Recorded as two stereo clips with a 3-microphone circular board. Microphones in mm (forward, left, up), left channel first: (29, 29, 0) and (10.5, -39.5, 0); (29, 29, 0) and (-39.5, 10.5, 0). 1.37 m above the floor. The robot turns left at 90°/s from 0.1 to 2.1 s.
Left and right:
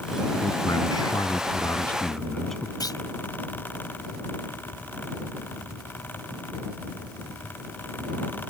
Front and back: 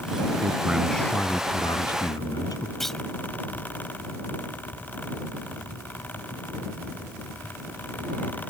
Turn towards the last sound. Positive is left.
turn(degrees=100)